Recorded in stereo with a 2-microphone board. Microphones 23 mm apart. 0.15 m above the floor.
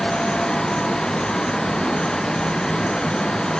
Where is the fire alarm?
I don't hear a fire alarm.